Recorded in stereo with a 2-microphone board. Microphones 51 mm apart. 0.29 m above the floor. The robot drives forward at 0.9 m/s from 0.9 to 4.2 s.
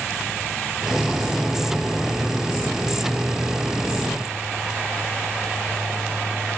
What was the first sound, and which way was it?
Only background noise.